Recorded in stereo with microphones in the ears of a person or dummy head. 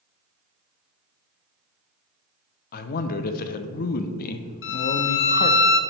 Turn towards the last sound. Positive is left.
turn(degrees=60)  # may be behind; listen again after turning